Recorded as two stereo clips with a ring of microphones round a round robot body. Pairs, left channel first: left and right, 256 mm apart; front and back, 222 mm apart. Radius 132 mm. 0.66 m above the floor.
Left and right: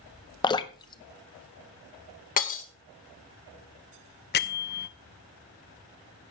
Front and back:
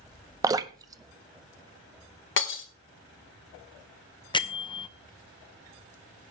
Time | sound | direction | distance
0.4 | dripping | 135° left | 0.7 m
2.4 | breaking glass | 30° left | 1.6 m
4.3 | a bell | 60° left | 0.8 m